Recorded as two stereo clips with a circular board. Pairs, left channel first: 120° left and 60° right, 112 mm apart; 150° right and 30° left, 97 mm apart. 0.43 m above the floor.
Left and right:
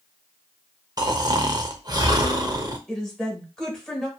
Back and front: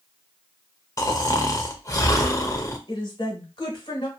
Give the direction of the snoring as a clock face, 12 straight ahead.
3 o'clock.